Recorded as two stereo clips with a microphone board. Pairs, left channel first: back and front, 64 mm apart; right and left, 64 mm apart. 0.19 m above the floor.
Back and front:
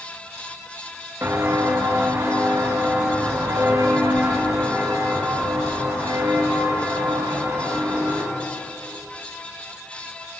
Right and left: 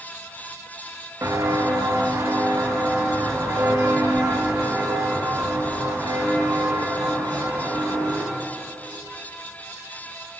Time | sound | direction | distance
1.2 | footsteps | 50° left | 3 m